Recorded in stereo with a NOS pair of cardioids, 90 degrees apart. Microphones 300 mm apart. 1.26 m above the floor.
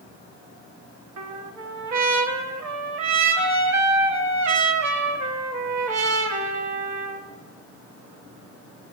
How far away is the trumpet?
About 1.3 m.